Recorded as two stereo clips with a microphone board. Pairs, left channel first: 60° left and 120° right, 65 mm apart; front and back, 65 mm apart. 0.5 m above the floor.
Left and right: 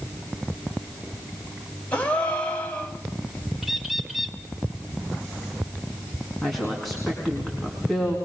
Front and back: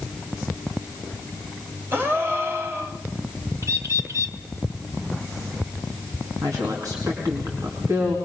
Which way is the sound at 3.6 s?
155° left.